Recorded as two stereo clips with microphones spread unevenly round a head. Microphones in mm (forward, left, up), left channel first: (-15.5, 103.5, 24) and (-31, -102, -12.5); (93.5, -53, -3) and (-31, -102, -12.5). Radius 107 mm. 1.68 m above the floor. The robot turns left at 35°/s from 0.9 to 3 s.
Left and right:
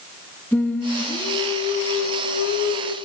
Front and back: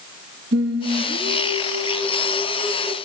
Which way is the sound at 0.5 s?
165° left.